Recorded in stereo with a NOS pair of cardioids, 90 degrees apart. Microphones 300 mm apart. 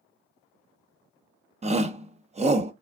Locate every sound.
1.6 s a shout: 20° right, 0.8 m